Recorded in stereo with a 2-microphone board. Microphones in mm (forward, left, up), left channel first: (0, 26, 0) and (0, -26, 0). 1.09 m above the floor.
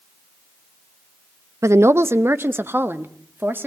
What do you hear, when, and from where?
1.6 s a woman speaking: 65° right (ahead or behind), 0.5 m; by 3.7 s 40° right (ahead or behind), 1.8 m